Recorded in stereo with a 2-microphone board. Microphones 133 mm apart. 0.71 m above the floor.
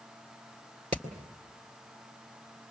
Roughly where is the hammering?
Right.